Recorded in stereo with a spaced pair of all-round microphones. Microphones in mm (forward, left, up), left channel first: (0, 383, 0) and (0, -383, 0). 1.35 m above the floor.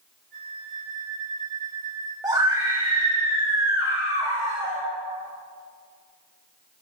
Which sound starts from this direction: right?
A flute, at 0.3 s.